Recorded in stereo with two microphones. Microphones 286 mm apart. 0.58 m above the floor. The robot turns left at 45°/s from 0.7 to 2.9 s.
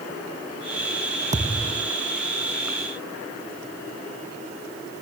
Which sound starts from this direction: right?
A thud, at 1.3 s.